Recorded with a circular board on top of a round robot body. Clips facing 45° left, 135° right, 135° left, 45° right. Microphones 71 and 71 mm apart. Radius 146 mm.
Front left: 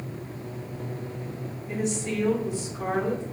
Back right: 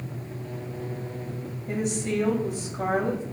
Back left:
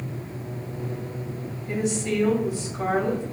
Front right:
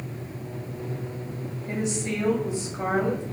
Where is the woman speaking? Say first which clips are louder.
Back right 1 dB, back left 3 dB; 115° right, 2 m.